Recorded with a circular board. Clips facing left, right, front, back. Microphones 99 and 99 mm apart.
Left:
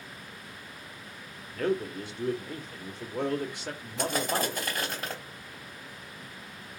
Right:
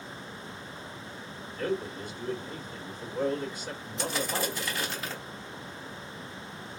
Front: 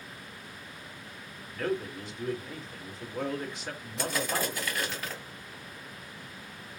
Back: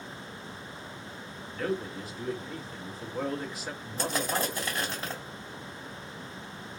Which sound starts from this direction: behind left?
Crushing, at 4.0 s.